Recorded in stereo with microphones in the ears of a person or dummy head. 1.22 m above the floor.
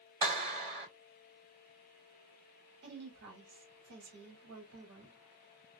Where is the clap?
30° right (ahead or behind), 1.9 m.